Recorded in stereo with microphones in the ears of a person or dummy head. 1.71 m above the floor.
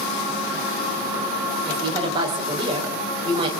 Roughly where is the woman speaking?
Right.